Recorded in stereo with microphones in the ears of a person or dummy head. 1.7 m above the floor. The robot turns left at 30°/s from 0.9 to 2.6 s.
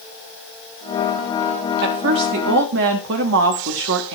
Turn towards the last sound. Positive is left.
turn(degrees=-60)  # may be behind; listen again after turning